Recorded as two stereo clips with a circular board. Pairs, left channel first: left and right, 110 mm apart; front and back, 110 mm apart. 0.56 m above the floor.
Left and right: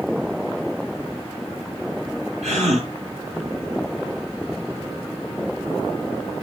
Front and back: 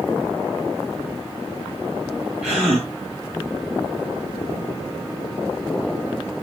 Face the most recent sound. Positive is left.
turn(degrees=-100)